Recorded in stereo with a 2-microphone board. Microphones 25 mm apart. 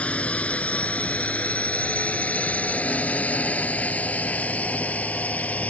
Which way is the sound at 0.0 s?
55° left (ahead or behind).